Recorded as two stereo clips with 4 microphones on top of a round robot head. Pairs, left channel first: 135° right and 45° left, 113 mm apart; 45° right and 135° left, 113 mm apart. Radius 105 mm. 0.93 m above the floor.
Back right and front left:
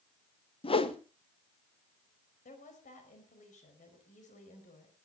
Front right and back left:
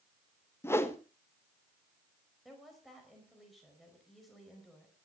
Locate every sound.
0.6 s a whoosh: 110° right, 1.5 m
2.5 s a woman speaking: 135° right, 5 m